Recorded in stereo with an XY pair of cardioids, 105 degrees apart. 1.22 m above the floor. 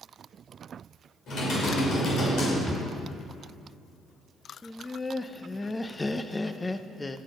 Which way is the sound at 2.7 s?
Straight ahead.